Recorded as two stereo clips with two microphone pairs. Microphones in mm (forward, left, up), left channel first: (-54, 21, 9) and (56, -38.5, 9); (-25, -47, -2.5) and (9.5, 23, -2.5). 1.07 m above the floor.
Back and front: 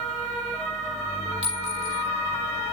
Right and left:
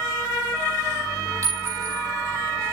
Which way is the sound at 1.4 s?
15° left.